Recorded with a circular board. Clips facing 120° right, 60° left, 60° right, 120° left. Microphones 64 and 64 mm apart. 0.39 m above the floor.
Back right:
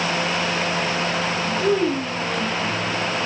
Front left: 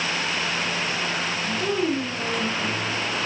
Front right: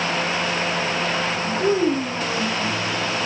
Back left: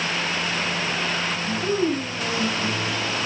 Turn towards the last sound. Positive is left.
turn(degrees=-45)